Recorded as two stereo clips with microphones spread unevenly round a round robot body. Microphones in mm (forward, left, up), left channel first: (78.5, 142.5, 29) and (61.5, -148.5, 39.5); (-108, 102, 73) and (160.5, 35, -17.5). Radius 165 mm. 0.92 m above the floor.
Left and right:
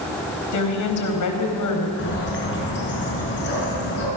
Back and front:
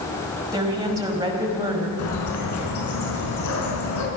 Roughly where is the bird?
Behind left.